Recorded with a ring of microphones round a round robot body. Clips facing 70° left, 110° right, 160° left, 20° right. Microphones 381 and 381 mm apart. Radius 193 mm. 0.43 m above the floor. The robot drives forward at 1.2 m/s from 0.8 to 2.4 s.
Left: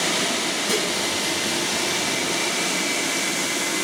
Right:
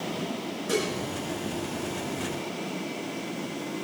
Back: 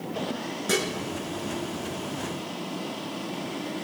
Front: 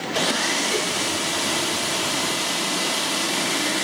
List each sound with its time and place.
0.7 s dishes clattering: 135° left, 4.5 m